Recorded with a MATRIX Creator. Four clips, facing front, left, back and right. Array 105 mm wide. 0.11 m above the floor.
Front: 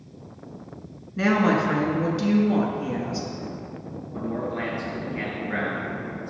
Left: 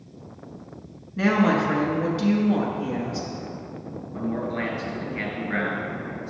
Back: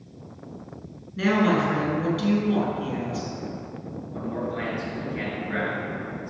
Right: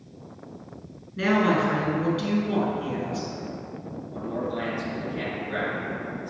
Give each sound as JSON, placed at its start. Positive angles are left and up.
{"t": 1.2, "sound": "a woman speaking", "azimuth_deg": 30, "distance_m": 1.1}
{"t": 4.1, "sound": "a man speaking", "azimuth_deg": 80, "distance_m": 1.8}